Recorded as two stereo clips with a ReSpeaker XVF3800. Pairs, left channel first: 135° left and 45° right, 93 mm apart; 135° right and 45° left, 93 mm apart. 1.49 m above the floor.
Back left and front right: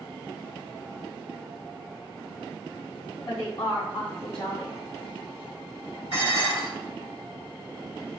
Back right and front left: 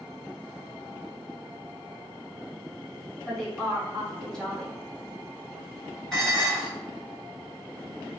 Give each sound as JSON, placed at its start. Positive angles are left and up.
{"t": 3.3, "sound": "a woman speaking", "azimuth_deg": 140, "distance_m": 1.7}
{"t": 6.1, "sound": "dishes clattering", "azimuth_deg": 140, "distance_m": 1.4}